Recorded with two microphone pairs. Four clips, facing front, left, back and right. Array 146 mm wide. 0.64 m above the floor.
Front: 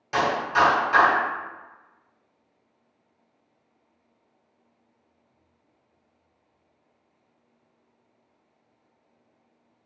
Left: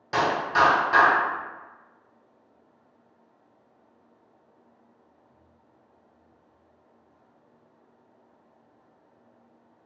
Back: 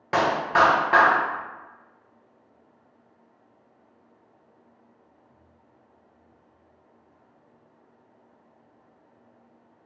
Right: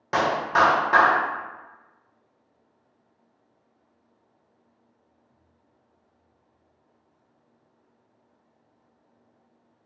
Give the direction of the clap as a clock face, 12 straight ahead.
5 o'clock.